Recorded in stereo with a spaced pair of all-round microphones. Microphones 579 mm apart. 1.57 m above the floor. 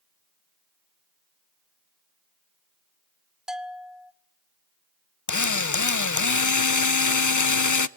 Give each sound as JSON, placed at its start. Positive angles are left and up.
{"t": 3.5, "sound": "a bell", "side_deg": 0, "distance_m": 1.1}
{"t": 5.3, "sound": "a drill", "side_deg": 35, "distance_m": 0.6}